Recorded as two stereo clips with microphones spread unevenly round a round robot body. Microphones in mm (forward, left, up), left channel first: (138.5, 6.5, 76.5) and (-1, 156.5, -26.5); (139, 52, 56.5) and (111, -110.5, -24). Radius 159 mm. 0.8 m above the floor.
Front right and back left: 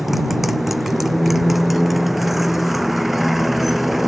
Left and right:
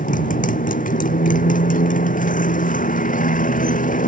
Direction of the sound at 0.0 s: 40° left.